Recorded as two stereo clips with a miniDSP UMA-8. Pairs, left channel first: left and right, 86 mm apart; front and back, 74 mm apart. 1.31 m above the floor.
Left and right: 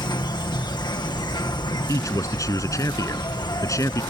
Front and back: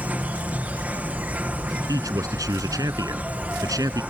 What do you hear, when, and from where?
0.0 s an insect: 115° left
1.9 s a man speaking: 140° left